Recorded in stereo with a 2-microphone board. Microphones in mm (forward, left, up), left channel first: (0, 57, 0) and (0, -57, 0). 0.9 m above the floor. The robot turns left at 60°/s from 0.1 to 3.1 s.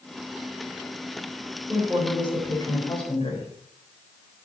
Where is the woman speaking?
160° right, 3.5 m; by 3.5 s 115° left, 3.5 m.